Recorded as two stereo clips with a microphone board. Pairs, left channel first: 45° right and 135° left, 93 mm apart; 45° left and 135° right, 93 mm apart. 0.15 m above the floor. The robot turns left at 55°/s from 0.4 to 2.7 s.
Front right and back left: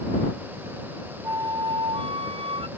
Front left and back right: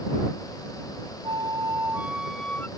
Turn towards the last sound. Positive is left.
turn(degrees=115)